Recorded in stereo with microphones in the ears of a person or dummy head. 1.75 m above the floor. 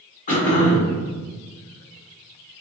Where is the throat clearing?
45° left (ahead or behind), 1.3 m.